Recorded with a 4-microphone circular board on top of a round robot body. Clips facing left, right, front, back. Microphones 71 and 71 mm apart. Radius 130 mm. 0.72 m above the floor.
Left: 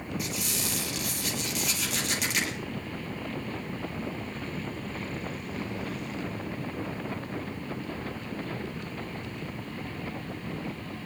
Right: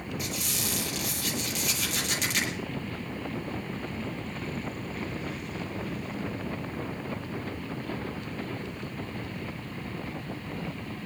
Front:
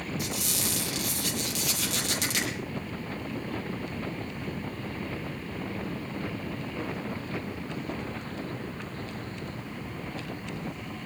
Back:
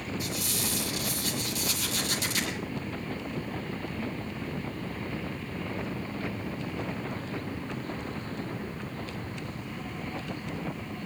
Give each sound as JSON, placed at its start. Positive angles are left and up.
{"t": 0.2, "sound": "a squeak", "azimuth_deg": 0, "distance_m": 8.0}